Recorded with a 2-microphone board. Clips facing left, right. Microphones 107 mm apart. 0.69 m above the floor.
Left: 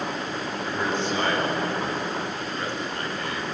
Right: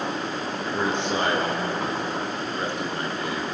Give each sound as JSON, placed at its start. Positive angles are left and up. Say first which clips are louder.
{"t": 0.6, "sound": "a man speaking", "louder": "right 1 dB", "side_deg": -20, "distance_m": 9.0}